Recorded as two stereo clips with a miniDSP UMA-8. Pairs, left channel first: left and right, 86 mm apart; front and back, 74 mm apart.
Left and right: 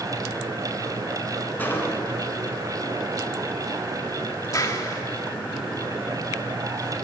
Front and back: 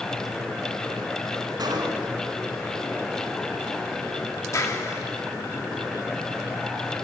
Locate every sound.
1.6 s a gunshot: 160° left, 3 m
4.5 s a clap: 40° left, 2 m